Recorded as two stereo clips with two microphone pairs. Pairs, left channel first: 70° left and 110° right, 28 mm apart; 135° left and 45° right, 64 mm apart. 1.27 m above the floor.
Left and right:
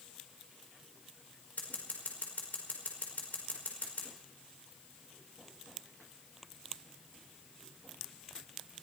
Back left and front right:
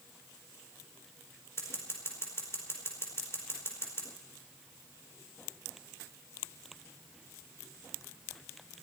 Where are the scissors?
85° left, 4.5 m.